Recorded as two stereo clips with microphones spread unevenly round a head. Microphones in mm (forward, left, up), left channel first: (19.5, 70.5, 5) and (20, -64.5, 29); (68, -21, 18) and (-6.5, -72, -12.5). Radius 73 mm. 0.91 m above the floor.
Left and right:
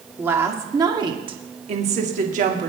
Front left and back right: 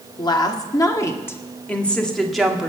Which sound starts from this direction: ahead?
A woman speaking, at 0.2 s.